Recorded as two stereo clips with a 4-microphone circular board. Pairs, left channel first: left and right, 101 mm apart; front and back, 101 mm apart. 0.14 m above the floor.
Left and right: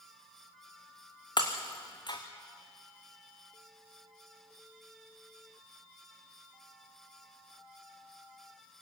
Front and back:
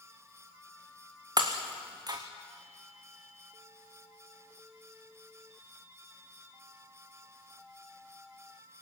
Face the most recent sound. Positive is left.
turn(degrees=130)